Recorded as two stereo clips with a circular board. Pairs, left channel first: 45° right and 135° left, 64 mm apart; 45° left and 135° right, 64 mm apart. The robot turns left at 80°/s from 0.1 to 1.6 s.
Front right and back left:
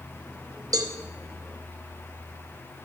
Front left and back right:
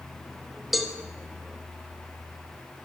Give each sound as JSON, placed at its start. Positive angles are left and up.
{"t": 0.7, "sound": "a cowbell", "azimuth_deg": 140, "distance_m": 0.8}